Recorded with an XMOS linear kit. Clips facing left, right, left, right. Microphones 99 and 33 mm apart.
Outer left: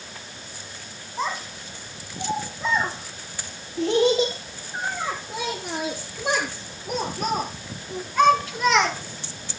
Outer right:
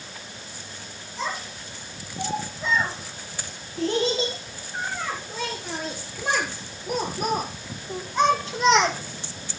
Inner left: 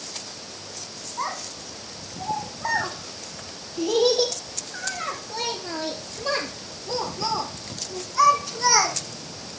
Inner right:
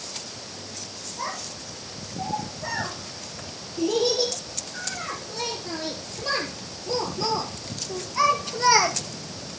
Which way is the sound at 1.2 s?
40° left (ahead or behind).